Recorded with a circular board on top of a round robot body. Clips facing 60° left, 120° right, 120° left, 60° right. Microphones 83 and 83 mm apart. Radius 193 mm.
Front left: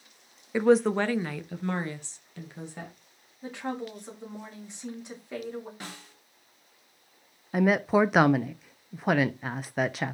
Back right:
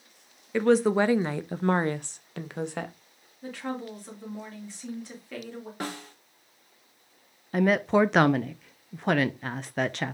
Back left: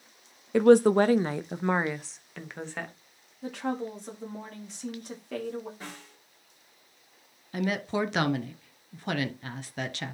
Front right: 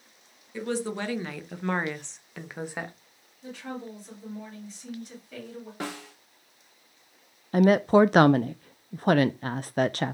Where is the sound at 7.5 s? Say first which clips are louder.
Back right 1 dB, front right 11 dB; 25° right, 0.6 m.